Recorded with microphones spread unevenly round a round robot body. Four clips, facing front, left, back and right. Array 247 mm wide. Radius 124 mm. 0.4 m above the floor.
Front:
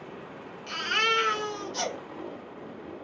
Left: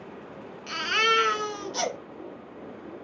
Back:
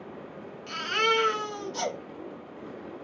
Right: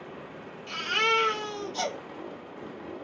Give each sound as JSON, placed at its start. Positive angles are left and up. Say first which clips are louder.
{"t": 0.7, "sound": "a baby crying", "louder": "left 2 dB, back 2 dB", "azimuth_deg": 85, "distance_m": 1.4}